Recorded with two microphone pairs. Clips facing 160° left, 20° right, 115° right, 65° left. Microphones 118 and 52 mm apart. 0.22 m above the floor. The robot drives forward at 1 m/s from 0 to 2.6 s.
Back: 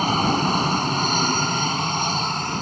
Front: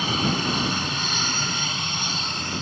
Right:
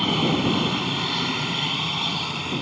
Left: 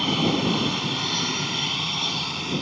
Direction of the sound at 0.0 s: 165° left.